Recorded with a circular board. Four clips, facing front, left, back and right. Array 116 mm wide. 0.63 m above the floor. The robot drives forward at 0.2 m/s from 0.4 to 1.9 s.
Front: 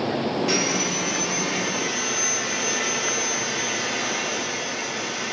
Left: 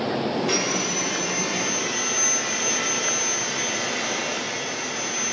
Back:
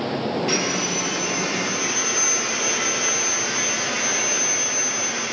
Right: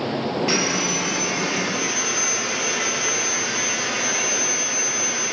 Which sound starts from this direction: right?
Sawing, at 0.5 s.